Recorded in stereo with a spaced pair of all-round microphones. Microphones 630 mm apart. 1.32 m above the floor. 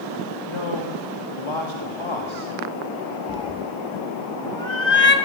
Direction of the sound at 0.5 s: 45° left (ahead or behind).